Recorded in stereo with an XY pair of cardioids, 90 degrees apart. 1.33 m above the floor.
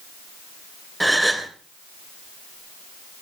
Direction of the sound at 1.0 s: 5° right.